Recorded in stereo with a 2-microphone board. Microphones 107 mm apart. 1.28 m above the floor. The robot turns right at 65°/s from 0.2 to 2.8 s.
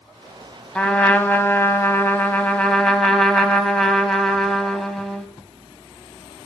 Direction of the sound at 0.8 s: 10° left (ahead or behind).